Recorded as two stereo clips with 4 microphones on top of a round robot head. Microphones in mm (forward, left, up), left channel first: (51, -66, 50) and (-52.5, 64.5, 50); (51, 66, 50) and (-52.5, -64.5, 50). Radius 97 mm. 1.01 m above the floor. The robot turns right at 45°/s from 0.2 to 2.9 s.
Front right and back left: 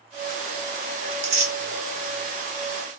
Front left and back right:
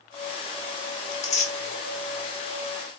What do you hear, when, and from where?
1.1 s tearing paper: 80° left, 0.8 m; by 1.5 s 100° left, 0.8 m